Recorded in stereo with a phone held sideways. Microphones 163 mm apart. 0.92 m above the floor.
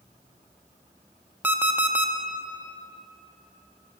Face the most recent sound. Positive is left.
turn(degrees=-10)  # may be behind; listen again after turning